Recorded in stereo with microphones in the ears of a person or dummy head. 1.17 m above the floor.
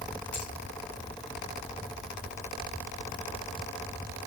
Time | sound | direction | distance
0.3 | a finger snap | 5° left (ahead or behind) | 2.5 m